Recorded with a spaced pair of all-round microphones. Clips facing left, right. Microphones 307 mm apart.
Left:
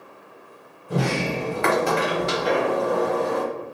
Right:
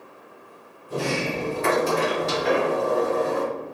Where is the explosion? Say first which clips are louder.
Right 1 dB; 60° right (ahead or behind), 1.0 m.